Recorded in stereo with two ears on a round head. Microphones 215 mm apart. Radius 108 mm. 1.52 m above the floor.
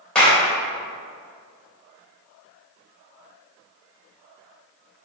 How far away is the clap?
About 2 m.